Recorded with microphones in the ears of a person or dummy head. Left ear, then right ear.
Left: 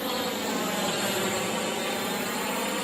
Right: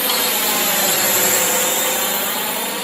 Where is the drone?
50° right (ahead or behind); by 2.9 s 20° right (ahead or behind).